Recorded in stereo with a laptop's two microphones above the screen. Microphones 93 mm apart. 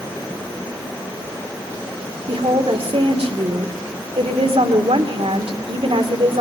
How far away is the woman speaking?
About 2.5 m.